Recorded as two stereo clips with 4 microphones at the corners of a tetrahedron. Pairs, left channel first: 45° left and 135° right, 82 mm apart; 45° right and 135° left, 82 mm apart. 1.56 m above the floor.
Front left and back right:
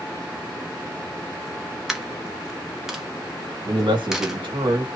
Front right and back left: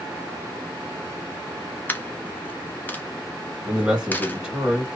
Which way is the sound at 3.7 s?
145° right.